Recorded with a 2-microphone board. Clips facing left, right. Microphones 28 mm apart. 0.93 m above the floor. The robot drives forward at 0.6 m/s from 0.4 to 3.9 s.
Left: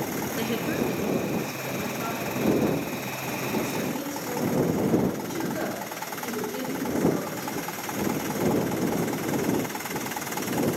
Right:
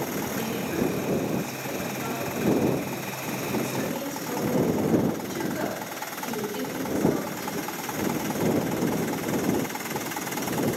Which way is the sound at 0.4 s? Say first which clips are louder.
Left 1 dB; 45° left (ahead or behind).